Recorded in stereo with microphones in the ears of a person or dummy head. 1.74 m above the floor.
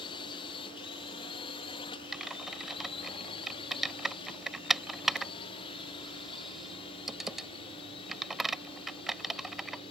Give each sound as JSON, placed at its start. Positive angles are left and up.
{"t": 0.0, "sound": "a drone", "side_deg": 30}
{"t": 2.1, "sound": "typing on a keyboard", "side_deg": 0}